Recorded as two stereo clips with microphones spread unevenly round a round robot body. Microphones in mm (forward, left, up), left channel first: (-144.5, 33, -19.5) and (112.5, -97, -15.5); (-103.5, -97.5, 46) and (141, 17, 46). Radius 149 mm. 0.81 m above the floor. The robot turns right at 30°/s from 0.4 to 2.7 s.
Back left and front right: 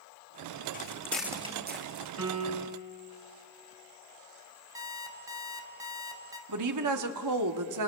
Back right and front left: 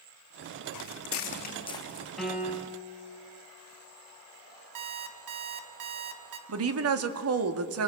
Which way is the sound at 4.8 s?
50° left.